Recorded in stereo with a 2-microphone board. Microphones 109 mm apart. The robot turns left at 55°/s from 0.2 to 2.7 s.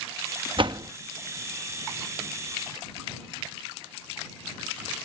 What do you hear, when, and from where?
0.6 s a door slam: 50° right (ahead or behind); by 0.9 s 35° right (ahead or behind)